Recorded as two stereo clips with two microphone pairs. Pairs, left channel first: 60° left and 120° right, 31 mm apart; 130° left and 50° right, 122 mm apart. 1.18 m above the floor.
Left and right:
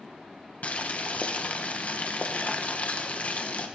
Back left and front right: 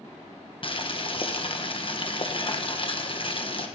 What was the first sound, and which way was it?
Boiling, 100° left.